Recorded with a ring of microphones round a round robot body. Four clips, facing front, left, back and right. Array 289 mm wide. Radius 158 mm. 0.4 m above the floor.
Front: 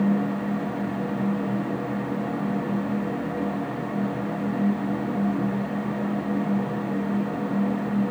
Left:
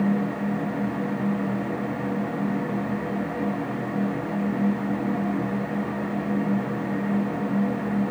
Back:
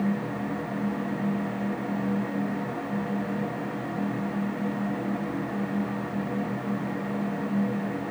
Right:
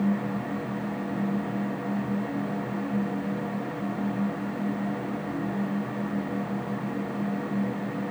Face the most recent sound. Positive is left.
No sound to turn to.